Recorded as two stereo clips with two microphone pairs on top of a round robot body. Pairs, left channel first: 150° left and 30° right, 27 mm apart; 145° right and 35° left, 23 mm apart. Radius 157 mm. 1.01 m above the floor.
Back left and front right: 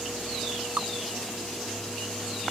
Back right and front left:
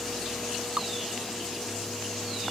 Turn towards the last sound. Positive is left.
turn(degrees=-5)